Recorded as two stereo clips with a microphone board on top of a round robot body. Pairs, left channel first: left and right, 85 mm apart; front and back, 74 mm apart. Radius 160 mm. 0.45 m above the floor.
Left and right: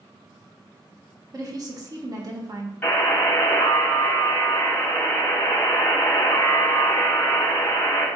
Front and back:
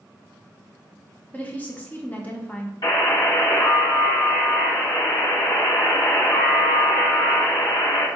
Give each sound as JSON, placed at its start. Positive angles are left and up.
{"t": 1.3, "sound": "a woman speaking", "azimuth_deg": -65, "distance_m": 1.7}
{"t": 2.8, "sound": "a buzzer", "azimuth_deg": 20, "distance_m": 3.5}